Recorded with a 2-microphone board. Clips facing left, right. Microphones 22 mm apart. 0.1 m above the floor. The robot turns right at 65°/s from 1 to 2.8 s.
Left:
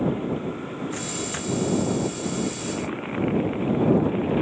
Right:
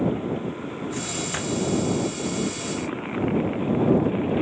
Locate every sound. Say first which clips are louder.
0.9 s a microwave: right 1 dB; 15° left (ahead or behind); by 1.7 s 30° right (ahead or behind)